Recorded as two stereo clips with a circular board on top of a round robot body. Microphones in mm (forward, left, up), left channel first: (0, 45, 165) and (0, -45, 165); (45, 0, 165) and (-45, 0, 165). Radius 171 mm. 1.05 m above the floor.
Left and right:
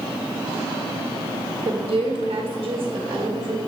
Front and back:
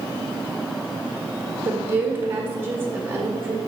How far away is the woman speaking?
About 1.6 m.